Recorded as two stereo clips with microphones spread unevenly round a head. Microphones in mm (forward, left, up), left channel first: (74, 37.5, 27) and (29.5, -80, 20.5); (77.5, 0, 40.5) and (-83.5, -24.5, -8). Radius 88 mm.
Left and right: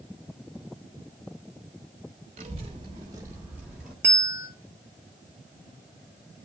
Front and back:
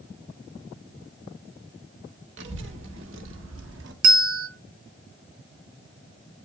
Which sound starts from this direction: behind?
A bell, at 4.0 s.